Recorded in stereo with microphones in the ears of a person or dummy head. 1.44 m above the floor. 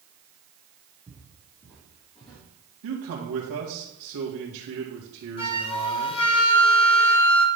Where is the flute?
35° left (ahead or behind), 1.3 m.